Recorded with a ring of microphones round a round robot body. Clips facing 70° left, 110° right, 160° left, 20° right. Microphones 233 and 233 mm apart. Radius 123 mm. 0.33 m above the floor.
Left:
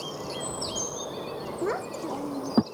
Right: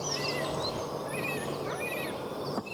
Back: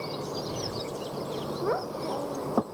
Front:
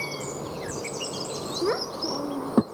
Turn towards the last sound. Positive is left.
turn(degrees=40)